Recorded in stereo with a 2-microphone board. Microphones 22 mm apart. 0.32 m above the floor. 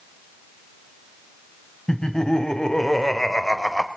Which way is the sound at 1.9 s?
40° left (ahead or behind).